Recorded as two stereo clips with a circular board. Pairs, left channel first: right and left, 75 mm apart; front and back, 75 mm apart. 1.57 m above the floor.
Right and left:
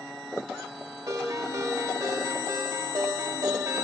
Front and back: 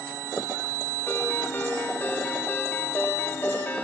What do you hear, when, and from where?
1.1 s a ringtone: 60° left, 3 m